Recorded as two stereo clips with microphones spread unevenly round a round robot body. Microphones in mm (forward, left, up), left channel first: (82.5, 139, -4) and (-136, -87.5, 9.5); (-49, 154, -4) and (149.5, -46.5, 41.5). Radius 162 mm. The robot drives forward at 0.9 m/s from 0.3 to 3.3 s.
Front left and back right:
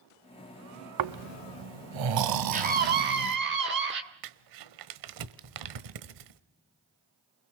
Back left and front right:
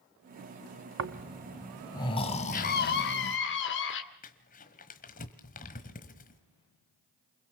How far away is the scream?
About 1.1 m.